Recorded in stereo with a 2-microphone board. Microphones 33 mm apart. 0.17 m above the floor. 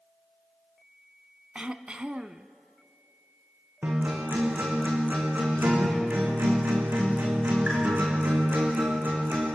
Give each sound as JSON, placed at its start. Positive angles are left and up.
{"t": 1.6, "sound": "throat clearing", "side_deg": -35, "distance_m": 0.6}
{"t": 3.8, "sound": "a guitar", "side_deg": -65, "distance_m": 4.0}